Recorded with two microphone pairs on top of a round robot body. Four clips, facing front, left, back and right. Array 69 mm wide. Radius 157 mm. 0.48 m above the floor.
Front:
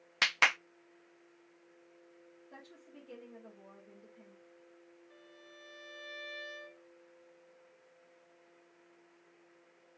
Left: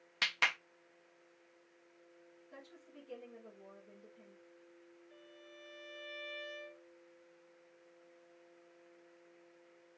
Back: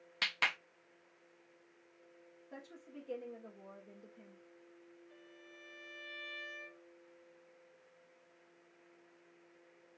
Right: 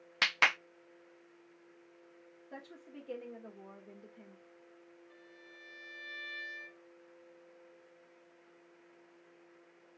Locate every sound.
0.2 s a clap: 35° right, 0.6 m
2.5 s a woman speaking: 100° right, 2 m
5.1 s a violin: 60° right, 3 m